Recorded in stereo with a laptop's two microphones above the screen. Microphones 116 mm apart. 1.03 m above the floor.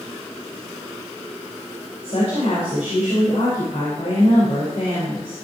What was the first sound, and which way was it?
A woman speaking, 65° left (ahead or behind).